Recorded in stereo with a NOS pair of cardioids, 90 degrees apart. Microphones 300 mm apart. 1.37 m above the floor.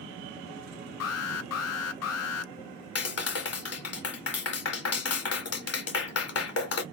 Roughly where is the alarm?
Ahead left.